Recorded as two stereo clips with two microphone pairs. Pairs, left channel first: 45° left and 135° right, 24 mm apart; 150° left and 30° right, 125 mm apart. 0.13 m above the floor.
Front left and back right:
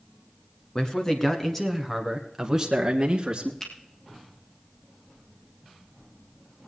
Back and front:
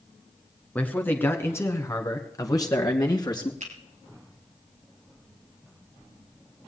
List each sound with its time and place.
0.8 s a man speaking: 80° left, 1.8 m; by 3.5 s 170° right, 2 m
3.6 s a finger snap: 20° right, 3 m